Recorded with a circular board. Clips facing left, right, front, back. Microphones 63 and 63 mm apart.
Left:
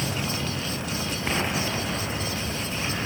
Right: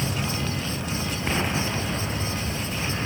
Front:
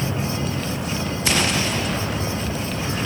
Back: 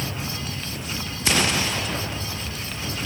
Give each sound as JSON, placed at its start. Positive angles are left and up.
{"t": 0.0, "sound": "a vehicle", "azimuth_deg": 5}